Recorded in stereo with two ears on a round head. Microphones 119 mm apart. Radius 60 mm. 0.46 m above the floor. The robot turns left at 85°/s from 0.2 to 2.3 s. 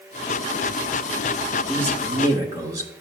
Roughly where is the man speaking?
Centre.